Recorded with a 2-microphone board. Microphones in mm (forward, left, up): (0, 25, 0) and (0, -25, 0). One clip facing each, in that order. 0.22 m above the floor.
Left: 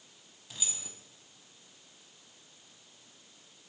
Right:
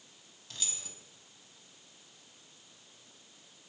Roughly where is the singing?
No singing in this recording.